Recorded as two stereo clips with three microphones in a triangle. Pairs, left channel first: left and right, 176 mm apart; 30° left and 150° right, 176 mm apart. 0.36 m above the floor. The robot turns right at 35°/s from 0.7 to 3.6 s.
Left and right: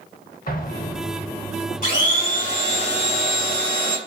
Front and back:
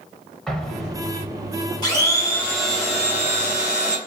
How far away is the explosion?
About 0.5 m.